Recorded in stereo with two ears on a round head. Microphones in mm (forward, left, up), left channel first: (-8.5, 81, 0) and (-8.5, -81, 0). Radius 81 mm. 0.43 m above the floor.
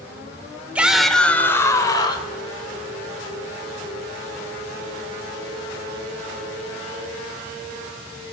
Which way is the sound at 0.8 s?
10° right (ahead or behind).